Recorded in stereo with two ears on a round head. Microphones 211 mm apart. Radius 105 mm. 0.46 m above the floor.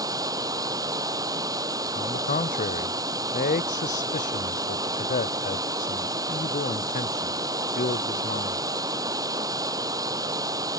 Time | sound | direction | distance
0.0 | running water | 15° right (ahead or behind) | ?
1.9 | a man speaking | 30° left (ahead or behind) | ?